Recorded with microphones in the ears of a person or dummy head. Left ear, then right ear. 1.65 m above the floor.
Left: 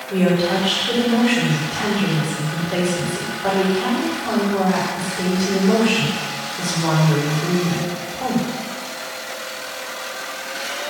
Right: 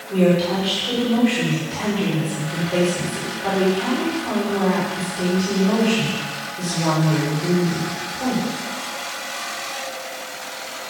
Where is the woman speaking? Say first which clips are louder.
Even; 5° right (ahead or behind), 6 m.